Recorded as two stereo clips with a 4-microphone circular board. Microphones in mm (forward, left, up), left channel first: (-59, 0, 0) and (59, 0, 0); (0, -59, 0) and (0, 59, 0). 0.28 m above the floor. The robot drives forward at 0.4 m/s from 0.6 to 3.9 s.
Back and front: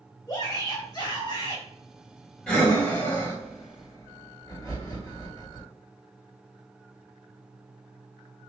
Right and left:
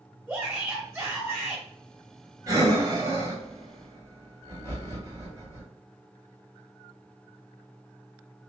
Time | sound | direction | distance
0.3 | a shout | 160° left | 1.6 m
2.5 | breathing | 105° left | 1.7 m